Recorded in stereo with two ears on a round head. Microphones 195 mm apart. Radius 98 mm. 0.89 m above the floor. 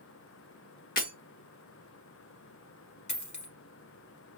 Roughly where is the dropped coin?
Left.